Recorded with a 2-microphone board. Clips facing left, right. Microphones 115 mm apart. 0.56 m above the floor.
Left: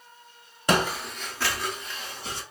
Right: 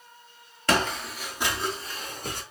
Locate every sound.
0.7 s footsteps: 15° left (ahead or behind), 0.6 m; by 2.4 s 55° right (ahead or behind), 0.8 m